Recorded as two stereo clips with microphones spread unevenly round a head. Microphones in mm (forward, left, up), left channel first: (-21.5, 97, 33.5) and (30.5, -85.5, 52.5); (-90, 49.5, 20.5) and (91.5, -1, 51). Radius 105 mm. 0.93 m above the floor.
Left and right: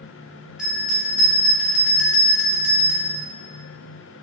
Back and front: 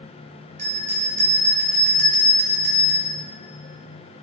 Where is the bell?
10° left, 2.0 m.